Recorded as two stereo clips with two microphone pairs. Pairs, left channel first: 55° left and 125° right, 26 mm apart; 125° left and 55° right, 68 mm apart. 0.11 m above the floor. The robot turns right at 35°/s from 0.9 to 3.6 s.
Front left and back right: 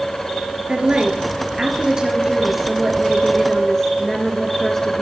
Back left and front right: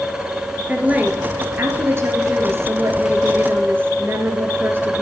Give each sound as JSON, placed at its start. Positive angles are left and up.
{"t": 0.7, "sound": "a woman speaking", "azimuth_deg": -115, "distance_m": 1.5}